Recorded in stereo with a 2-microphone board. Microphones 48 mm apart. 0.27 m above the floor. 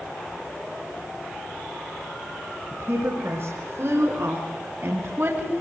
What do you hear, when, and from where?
2.7 s a woman speaking: 60° right (ahead or behind), 4.5 m; by 5.6 s 55° right (ahead or behind), 2 m